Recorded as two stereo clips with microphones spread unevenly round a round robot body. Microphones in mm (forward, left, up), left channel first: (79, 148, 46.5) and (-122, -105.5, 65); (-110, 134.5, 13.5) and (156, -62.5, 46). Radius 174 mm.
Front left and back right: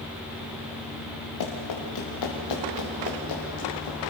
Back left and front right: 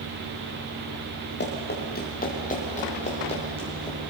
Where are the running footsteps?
85° left, 4.5 m; by 4.0 s 65° left, 5.5 m.